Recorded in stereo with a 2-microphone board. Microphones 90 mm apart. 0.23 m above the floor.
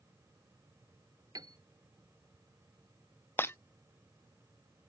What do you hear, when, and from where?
1.4 s a piano: 45° right (ahead or behind)
3.4 s breaking glass: 25° left (ahead or behind)